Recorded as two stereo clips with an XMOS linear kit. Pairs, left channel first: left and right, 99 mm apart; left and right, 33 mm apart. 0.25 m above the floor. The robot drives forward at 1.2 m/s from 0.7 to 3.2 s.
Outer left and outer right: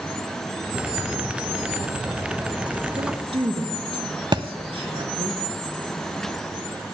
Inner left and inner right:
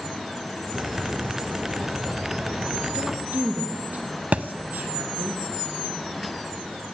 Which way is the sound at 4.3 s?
50° right (ahead or behind).